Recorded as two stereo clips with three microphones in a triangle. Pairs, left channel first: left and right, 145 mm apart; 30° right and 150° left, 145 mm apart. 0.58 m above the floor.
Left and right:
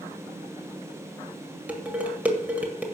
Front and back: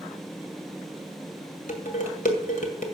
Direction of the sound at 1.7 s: 10° right.